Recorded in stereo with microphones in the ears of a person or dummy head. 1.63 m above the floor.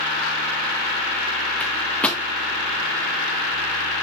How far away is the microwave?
About 1.2 m.